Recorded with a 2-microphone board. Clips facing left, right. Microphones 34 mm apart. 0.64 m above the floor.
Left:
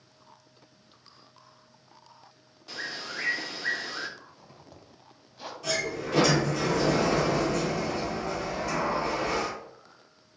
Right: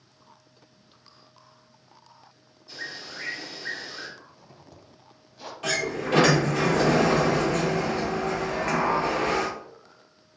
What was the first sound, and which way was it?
A bird, 70° left (ahead or behind).